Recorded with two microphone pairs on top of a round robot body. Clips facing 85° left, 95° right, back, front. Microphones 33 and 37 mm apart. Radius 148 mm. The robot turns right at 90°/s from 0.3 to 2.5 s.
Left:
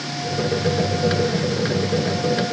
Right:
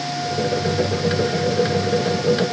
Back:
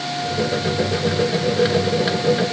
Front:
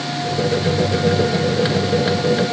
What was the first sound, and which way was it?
Only background noise.